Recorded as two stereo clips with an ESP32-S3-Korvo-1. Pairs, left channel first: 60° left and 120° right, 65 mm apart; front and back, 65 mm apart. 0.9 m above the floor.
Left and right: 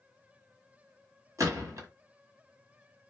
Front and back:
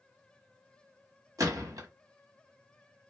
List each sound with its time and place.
1.4 s a gunshot: 150° right, 1.4 m